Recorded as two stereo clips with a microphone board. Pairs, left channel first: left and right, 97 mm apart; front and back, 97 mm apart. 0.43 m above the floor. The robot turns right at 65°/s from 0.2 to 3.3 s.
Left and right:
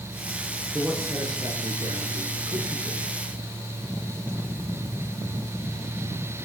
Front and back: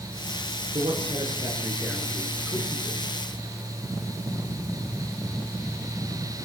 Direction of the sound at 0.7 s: 170° right.